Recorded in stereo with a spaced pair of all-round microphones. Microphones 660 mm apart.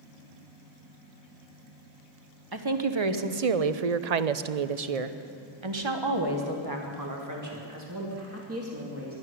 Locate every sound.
2.5 s a woman speaking: 35° right (ahead or behind), 1.1 m; by 9.2 s 20° right (ahead or behind), 2.5 m